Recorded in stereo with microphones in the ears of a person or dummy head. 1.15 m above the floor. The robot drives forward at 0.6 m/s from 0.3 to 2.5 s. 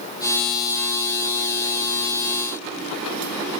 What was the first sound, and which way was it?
Only background noise.